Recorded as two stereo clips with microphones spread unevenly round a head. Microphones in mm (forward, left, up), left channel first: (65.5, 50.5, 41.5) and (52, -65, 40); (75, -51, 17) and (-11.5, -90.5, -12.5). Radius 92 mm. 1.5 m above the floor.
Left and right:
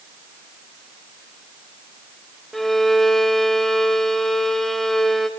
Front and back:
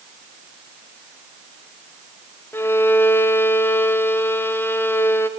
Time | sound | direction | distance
2.5 | a violin | 5° right | 0.6 m